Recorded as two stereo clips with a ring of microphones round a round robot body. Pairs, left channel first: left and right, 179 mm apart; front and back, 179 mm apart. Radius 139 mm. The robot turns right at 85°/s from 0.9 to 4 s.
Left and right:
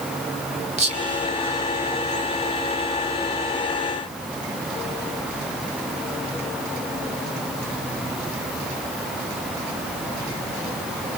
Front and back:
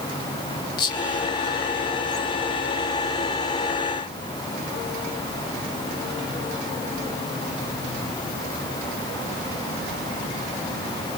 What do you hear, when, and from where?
0.8 s whispering: 35° right, 1.7 m; by 2.3 s 80° left, 1.7 m